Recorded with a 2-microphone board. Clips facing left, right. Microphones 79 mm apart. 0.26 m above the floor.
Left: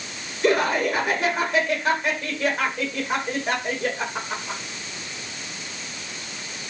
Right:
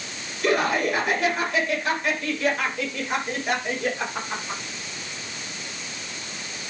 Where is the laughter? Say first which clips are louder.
Left 2 dB; 25° left (ahead or behind), 8 m.